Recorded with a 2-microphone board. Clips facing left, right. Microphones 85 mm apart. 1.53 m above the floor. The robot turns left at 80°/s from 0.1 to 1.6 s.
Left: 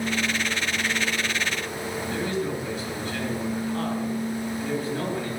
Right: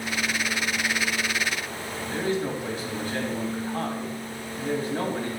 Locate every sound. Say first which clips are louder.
2.1 s a man speaking: right 2 dB; 40° right (ahead or behind), 2.5 m